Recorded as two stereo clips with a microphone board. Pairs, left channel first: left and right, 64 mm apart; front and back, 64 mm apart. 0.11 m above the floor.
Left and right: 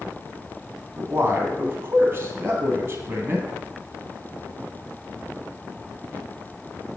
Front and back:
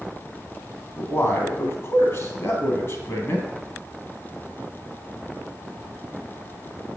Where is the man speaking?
35° right, 2.5 m.